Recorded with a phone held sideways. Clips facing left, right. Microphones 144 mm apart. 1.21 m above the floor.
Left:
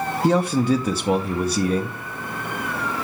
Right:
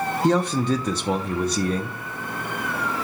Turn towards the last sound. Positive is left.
turn(degrees=10)  # may be behind; listen again after turning